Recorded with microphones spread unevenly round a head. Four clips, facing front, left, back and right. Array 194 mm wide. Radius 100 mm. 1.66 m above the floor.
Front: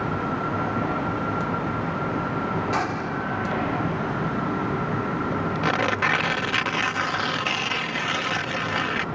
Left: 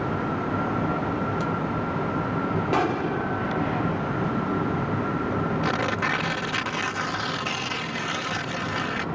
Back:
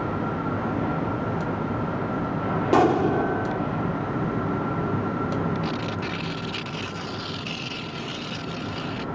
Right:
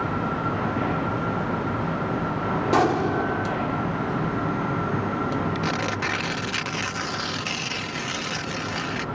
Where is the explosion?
165° right.